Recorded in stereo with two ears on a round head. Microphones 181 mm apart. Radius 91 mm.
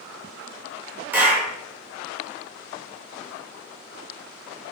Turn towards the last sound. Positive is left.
turn(degrees=-10)  # may be behind; listen again after turning